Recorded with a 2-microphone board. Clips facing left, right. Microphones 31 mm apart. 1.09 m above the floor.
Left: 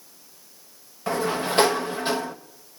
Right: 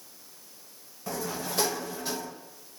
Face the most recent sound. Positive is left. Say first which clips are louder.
# left 9 dB
turn(degrees=50)  # may be behind; listen again after turning